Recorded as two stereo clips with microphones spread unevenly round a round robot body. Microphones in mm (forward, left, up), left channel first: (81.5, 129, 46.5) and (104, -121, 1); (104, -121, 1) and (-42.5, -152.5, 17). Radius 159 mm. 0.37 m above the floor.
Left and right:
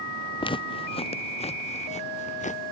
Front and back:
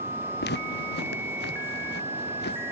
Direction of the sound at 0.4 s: 25° left.